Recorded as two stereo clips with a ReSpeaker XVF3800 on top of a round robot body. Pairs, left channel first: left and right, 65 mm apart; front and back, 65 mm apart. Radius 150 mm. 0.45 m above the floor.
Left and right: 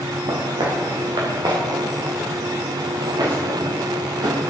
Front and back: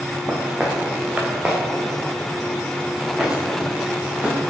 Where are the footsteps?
105° right, 3.5 m.